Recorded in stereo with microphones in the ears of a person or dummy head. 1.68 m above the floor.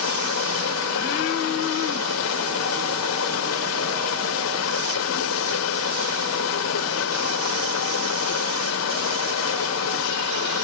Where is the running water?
65° left (ahead or behind), 1.8 m.